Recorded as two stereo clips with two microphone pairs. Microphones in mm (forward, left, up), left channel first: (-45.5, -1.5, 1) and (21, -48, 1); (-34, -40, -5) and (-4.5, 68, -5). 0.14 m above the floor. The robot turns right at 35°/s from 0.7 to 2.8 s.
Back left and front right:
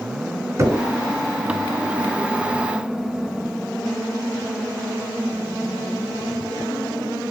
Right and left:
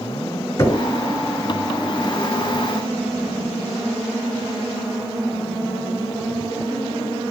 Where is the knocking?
55° right, 1.0 m; by 0.8 s 50° right, 1.0 m.